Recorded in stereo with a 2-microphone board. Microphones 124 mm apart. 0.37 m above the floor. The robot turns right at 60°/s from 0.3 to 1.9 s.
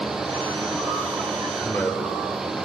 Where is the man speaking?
10° left (ahead or behind), 0.8 m; by 2.5 s 15° left (ahead or behind), 0.8 m.